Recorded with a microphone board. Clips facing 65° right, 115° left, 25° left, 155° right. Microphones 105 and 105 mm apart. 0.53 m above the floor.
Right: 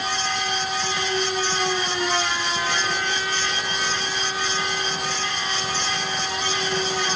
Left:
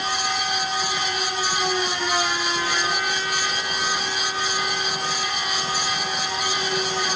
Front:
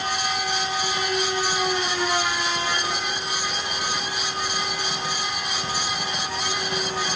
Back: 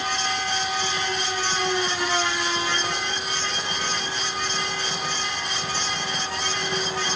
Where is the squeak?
I don't hear a squeak.